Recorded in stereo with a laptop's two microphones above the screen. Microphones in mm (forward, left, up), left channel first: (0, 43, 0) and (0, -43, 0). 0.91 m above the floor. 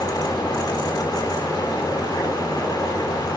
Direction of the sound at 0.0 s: 50° left (ahead or behind).